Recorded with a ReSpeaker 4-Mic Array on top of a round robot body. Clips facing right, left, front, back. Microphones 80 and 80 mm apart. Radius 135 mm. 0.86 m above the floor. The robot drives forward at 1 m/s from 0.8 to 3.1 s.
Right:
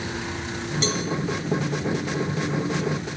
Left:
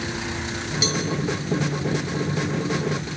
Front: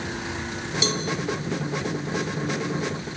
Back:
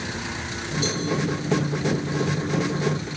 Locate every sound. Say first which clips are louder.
0.8 s a cowbell: left 1 dB, even; 5° left, 2.5 m